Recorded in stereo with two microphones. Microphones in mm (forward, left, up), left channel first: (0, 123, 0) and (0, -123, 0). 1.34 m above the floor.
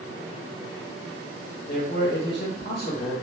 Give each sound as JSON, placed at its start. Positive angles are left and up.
{"t": 1.7, "sound": "a man speaking", "side_deg": 40, "distance_m": 1.0}